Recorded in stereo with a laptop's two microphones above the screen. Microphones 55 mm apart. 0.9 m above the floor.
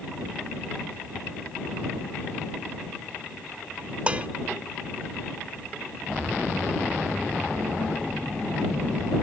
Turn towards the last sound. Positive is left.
turn(degrees=-25)  # may be behind; listen again after turning